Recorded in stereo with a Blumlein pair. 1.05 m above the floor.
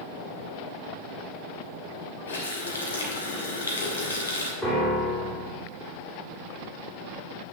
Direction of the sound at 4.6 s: Straight ahead.